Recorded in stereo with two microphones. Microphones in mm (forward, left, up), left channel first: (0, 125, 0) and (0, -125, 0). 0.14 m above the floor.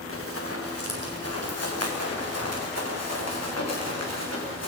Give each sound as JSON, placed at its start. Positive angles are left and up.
{"t": 0.1, "sound": "running footsteps", "side_deg": 60, "distance_m": 5.0}